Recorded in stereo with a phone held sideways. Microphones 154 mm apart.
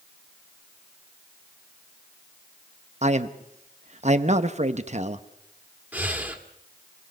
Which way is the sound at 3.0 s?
50° right (ahead or behind).